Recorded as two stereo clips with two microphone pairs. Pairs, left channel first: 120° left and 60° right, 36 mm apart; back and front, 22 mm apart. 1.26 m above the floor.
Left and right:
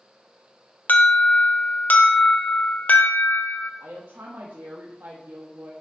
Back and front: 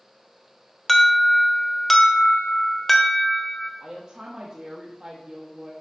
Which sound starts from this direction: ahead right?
A woman speaking, at 3.8 s.